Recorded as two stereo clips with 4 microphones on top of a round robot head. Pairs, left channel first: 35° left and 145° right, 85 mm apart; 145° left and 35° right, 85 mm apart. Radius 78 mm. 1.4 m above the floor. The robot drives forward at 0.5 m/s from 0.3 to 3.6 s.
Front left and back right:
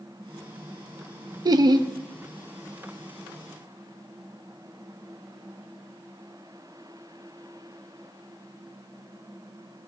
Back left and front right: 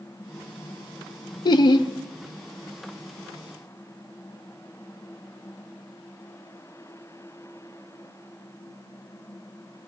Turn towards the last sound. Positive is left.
turn(degrees=180)